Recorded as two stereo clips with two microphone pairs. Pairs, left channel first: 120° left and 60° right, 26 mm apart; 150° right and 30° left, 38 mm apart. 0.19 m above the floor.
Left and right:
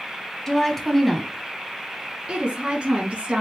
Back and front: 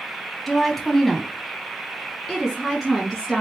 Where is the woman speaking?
145° left, 1.0 m; by 3.4 s 40° right, 1.6 m.